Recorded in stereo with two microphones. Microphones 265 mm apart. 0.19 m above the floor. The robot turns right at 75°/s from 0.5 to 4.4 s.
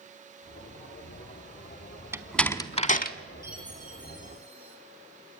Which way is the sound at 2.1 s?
10° right (ahead or behind).